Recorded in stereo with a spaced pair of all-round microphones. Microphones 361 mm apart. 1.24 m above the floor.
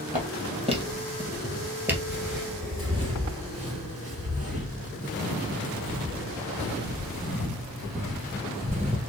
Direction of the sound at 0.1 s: 20° right (ahead or behind).